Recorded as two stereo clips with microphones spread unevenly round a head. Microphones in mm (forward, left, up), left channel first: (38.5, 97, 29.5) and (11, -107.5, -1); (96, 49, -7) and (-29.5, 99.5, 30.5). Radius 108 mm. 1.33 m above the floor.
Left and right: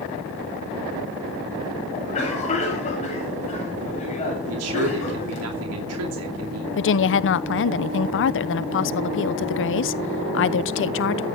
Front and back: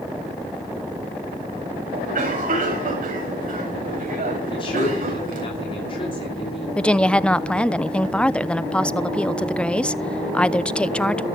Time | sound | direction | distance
1.9 | a cough | 145° left | 8 m
4.5 | a man speaking | 90° right | 2.5 m
6.8 | a woman speaking | 55° left | 0.9 m